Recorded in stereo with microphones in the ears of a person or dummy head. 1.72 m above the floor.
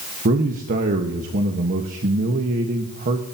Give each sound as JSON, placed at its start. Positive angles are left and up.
{"t": 0.2, "sound": "a man speaking", "side_deg": -40, "distance_m": 1.3}